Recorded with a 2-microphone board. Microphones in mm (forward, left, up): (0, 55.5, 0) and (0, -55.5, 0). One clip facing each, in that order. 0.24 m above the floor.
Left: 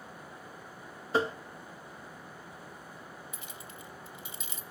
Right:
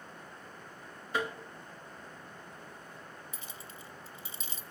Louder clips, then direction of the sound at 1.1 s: Left 5 dB; 30° left (ahead or behind).